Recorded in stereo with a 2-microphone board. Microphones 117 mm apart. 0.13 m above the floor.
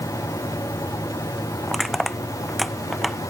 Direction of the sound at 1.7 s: Centre (ahead or behind).